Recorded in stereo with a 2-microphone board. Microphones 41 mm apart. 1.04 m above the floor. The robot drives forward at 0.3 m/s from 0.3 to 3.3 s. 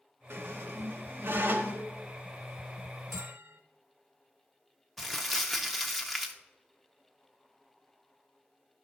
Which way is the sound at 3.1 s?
70° right (ahead or behind).